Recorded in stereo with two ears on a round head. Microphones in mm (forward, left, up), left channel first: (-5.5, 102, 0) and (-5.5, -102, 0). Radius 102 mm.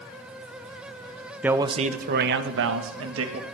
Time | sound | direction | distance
1.4 | a man speaking | 5° right (ahead or behind) | 0.5 m